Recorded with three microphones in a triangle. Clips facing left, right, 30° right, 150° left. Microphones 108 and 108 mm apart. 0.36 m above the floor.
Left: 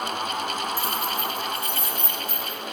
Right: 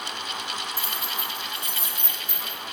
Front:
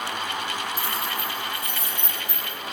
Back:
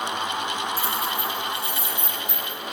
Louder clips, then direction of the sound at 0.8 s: Left 6 dB, back 2 dB; 140° left.